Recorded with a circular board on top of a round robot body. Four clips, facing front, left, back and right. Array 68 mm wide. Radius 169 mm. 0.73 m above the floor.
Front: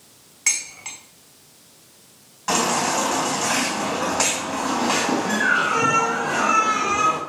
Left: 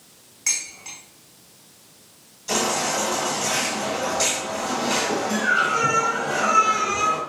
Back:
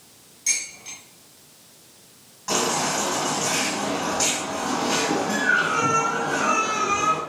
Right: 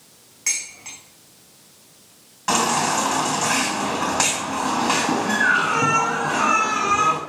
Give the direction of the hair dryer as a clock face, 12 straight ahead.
No hair dryer in this recording.